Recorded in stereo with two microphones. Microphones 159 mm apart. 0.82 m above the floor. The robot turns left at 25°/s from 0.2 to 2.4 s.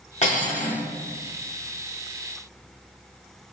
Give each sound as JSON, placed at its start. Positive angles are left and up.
{"t": 0.2, "sound": "cutlery clinking", "side_deg": 45, "distance_m": 0.9}